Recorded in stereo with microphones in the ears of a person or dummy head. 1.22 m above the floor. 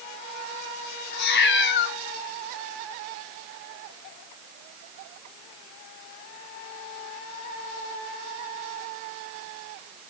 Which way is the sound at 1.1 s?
70° left (ahead or behind).